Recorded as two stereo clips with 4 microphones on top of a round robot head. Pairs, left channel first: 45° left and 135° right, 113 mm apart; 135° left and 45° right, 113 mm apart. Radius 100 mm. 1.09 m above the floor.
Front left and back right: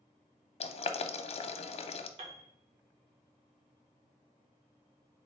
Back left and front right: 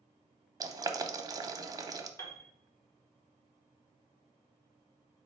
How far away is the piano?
About 1.2 m.